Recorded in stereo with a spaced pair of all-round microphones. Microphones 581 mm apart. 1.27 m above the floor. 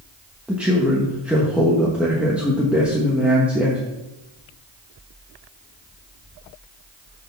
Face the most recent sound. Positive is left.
turn(degrees=0)  # may be behind; listen again after turning